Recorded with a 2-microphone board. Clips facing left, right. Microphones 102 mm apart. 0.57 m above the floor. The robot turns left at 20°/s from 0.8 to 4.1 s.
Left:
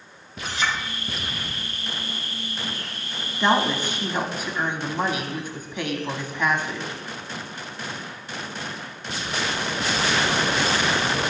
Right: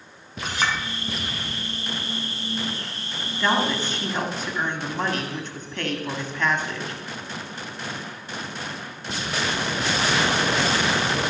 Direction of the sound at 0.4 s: 55° right (ahead or behind).